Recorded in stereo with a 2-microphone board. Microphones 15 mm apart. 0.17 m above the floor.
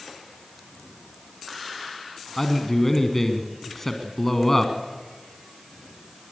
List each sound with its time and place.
2.4 s a man speaking: 15° left (ahead or behind), 1.5 m